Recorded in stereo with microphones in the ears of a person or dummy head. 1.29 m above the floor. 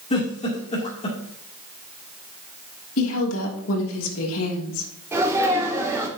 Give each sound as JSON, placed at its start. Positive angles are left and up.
{"t": 0.1, "sound": "a giggle", "side_deg": 35, "distance_m": 2.5}
{"t": 3.0, "sound": "a woman speaking", "side_deg": 90, "distance_m": 2.5}
{"t": 5.1, "sound": "a sneeze", "side_deg": -10, "distance_m": 4.0}